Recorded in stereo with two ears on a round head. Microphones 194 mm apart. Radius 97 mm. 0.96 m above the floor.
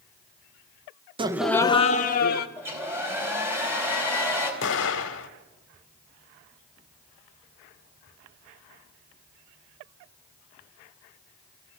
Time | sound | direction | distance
1.2 | laughter | 25° right (ahead or behind) | 0.7 m
2.6 | a hair dryer | 10° right (ahead or behind) | 4 m
4.6 | an explosion | 60° left (ahead or behind) | 1.5 m